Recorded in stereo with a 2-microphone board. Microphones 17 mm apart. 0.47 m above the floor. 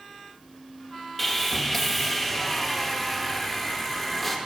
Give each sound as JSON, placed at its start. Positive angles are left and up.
{"t": 1.2, "sound": "sawing", "side_deg": 5, "distance_m": 0.7}